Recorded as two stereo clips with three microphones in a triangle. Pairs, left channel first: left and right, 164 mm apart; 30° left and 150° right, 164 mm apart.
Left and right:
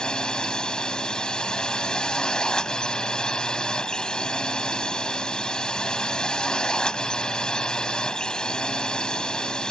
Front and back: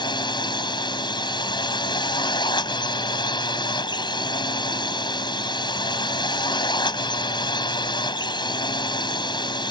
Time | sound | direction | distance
0.0 | a drone | 10° left | ?